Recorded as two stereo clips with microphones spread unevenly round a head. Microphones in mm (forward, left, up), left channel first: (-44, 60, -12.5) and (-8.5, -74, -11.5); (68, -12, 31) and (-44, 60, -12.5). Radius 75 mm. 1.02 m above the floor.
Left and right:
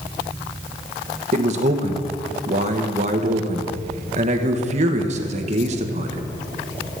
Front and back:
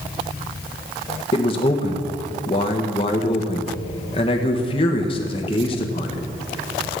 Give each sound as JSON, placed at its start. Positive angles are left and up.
{"t": 1.3, "sound": "a man speaking", "azimuth_deg": -95, "distance_m": 1.2}